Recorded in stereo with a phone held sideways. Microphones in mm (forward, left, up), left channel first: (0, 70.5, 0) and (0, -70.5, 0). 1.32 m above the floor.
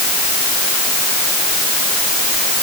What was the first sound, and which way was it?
Only background noise.